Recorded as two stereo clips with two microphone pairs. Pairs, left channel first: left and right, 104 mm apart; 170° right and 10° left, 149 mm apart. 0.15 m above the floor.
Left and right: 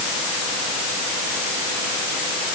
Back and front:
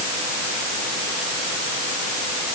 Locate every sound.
Only background noise.